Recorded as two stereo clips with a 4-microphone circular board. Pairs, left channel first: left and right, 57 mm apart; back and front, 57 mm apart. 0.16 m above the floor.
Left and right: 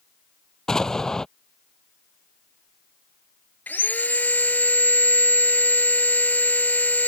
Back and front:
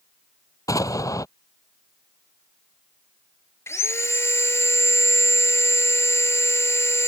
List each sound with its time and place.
0.7 s an explosion: 170° left
3.7 s sawing: 145° left